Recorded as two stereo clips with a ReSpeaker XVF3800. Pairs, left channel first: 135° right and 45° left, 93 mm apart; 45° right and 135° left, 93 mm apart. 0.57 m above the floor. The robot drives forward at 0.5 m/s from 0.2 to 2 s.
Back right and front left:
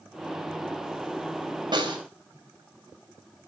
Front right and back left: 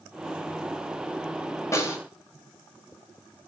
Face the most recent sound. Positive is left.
turn(degrees=15)